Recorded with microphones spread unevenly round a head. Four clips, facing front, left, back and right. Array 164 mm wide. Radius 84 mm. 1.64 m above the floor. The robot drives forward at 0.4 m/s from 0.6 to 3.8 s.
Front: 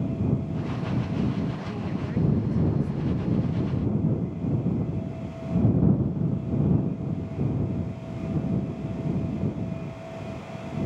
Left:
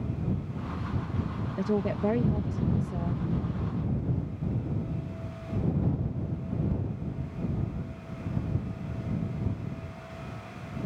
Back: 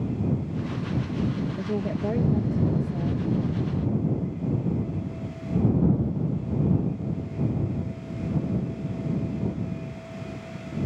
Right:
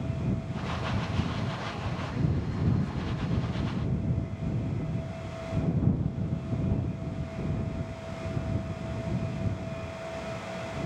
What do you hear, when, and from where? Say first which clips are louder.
1.6 s a woman speaking: left 8 dB, back 4 dB; 110° left; by 3.2 s 125° left